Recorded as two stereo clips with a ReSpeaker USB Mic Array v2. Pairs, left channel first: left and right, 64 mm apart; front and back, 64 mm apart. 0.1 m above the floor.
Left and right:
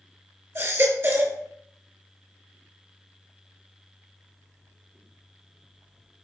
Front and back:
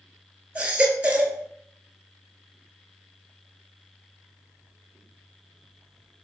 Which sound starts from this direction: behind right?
A baby crying, at 0.6 s.